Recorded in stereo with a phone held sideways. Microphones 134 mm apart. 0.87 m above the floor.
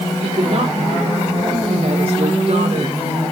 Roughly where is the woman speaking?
Right.